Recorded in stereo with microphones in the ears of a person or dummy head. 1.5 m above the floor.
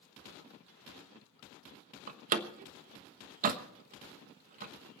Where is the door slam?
40° right (ahead or behind), 1.1 m.